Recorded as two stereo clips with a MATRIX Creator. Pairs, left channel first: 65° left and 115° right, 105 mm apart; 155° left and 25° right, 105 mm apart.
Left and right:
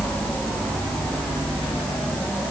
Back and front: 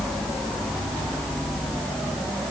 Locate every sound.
Only background noise.